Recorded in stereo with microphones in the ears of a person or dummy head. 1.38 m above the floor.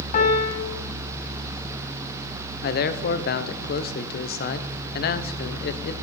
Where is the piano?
45° left (ahead or behind), 1.7 m.